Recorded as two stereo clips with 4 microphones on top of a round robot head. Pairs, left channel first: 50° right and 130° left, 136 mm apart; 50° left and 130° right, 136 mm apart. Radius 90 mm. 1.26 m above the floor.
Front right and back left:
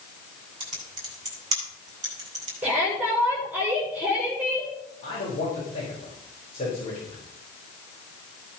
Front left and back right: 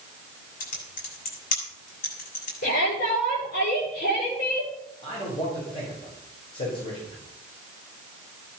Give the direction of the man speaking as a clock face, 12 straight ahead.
12 o'clock.